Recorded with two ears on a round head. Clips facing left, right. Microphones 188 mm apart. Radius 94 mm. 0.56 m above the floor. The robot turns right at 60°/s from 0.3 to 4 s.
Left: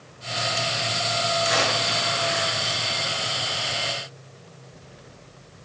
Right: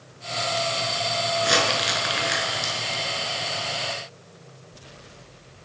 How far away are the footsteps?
No footsteps in this recording.